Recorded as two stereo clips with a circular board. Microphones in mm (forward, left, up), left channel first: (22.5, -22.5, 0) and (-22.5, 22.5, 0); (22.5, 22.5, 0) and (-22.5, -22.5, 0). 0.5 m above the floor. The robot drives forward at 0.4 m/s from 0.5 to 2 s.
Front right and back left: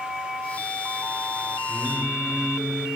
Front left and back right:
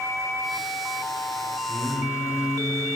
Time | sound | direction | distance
1.7 | singing | 45° left | 3 m